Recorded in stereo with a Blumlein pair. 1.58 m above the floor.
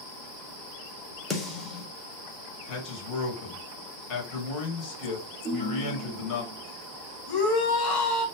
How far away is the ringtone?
About 1.5 m.